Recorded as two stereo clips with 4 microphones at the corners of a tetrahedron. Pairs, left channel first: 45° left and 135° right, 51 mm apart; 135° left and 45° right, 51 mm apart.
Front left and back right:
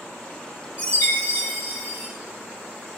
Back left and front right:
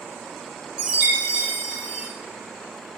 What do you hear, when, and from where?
0.8 s a chime: 25° left, 4 m